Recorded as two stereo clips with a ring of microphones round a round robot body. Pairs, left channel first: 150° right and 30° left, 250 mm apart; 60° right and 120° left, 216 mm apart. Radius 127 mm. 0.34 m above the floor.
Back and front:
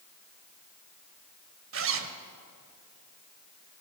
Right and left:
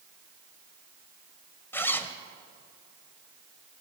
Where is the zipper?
20° left, 1.3 m.